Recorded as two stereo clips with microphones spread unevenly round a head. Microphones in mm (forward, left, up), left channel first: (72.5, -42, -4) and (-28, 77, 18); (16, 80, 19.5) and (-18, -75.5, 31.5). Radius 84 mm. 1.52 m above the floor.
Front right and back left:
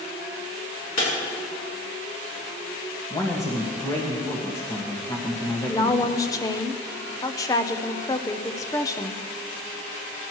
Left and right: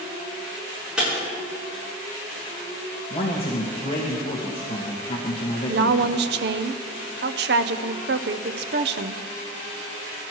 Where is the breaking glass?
20° right, 6.5 m.